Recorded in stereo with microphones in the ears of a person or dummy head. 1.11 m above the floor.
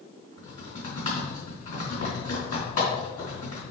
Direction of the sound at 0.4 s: 40° left (ahead or behind).